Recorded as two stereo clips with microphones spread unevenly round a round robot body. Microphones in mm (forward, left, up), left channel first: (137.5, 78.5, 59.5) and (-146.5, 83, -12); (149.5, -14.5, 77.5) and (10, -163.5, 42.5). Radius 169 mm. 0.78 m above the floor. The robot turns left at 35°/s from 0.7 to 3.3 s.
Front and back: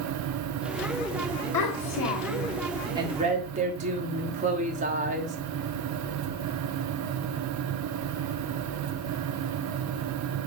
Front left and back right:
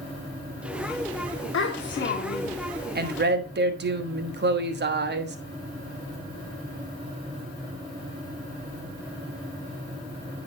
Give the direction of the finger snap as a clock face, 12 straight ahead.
I don't hear a finger snap.